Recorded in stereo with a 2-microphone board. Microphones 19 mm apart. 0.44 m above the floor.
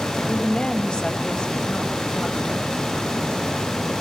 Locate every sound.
0.2 s a woman speaking: 65° left (ahead or behind), 2.5 m